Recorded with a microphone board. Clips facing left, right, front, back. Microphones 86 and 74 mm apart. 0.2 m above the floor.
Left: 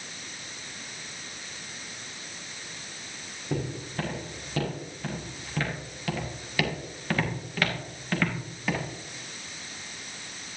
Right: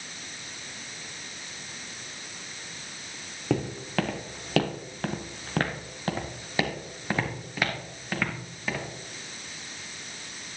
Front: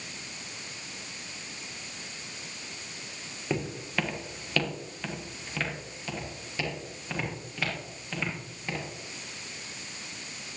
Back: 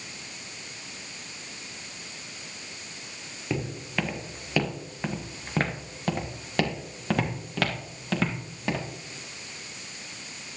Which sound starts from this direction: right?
Footsteps, at 3.5 s.